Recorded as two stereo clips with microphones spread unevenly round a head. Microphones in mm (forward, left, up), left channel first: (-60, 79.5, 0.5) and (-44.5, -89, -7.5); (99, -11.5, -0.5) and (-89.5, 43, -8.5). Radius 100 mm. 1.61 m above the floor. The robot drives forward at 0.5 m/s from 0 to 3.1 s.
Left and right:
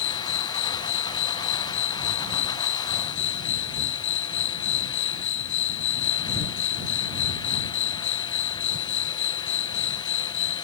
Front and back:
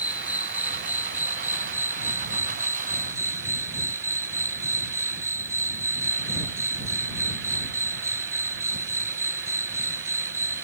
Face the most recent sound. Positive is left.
turn(degrees=85)